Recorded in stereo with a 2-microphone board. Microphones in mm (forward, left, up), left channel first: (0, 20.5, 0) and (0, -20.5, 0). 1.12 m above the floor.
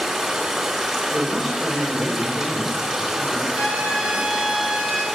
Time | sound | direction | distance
0.0 | running water | 15° right (ahead or behind) | 2.5 m
1.1 | a man speaking | centre (ahead or behind) | 3 m
3.5 | a trumpet | 35° right (ahead or behind) | 5 m